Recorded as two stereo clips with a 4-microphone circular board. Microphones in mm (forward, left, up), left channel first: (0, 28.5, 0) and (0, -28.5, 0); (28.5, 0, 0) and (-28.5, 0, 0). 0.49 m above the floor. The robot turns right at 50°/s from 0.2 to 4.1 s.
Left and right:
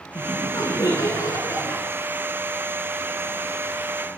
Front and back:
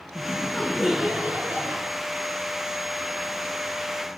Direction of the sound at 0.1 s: 60° left.